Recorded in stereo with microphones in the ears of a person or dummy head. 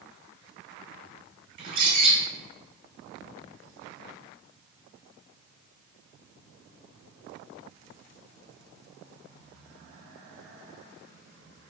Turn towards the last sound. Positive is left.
turn(degrees=-50)  # may be behind; listen again after turning